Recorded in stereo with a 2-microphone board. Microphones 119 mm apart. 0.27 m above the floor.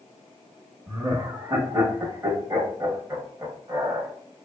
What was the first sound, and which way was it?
Laughter, 25° right (ahead or behind).